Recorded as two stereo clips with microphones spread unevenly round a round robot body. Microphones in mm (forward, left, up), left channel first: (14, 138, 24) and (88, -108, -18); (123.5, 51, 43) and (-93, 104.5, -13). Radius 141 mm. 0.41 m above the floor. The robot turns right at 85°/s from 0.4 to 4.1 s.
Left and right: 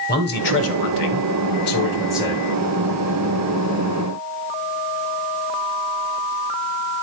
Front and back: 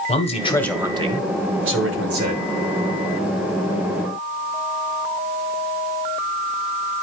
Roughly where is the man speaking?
Ahead left.